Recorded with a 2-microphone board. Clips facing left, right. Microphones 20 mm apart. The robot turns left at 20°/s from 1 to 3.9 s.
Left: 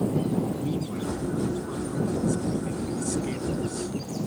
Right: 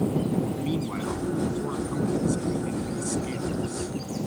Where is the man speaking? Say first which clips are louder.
Right 1 dB; 130° right; by 3.9 s 170° left.